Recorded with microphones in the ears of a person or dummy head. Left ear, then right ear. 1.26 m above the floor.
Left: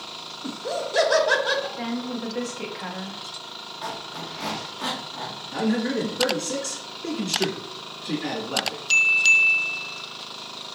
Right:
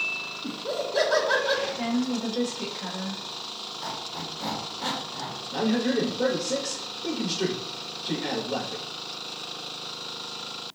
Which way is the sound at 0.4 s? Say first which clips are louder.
Left 4 dB; 30° left (ahead or behind).